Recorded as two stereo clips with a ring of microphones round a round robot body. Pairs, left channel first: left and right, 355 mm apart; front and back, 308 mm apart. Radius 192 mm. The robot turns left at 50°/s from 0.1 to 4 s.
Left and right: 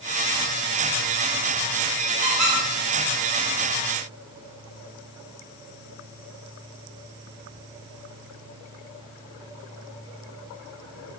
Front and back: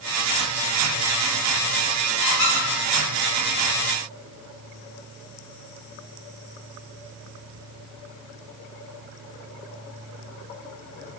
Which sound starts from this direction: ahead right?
A squeak, at 2.2 s.